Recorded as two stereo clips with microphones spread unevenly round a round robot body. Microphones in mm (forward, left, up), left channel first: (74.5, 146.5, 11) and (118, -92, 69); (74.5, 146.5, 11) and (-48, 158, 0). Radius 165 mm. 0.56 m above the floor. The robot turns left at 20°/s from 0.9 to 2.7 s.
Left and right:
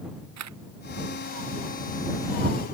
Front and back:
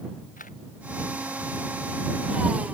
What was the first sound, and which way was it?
A camera shutter, 70° right.